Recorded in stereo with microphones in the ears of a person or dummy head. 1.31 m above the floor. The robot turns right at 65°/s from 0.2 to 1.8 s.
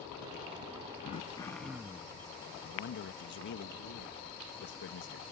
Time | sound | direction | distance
1.0 | throat clearing | 140° left | ?
2.6 | a man speaking | 60° left (ahead or behind) | ?